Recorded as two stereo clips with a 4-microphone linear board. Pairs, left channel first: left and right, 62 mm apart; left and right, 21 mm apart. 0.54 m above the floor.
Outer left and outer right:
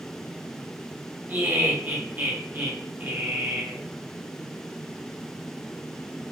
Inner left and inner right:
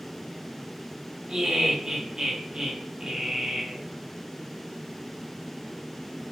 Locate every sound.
1.3 s laughter: 35° right (ahead or behind), 1.1 m